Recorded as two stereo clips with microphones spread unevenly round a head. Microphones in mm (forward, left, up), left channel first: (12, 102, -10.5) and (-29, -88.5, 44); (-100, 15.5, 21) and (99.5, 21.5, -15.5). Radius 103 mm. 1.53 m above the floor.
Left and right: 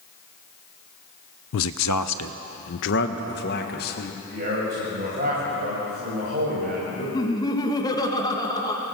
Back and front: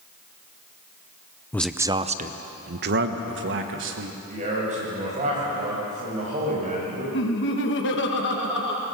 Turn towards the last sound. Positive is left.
turn(degrees=150)